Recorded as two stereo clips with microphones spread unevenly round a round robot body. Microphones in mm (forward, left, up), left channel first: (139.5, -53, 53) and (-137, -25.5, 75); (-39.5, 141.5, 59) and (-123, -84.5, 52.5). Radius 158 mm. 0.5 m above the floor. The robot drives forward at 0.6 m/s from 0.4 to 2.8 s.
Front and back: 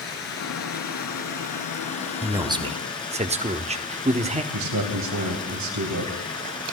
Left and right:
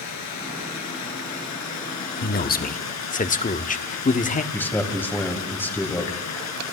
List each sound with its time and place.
0.0 s running water: 50° left, 4.5 m; by 6.8 s 70° left, 3.5 m
2.2 s a man speaking: 90° left, 1.3 m; by 4.4 s 110° left, 1.3 m
4.5 s a man speaking: 150° left, 3.5 m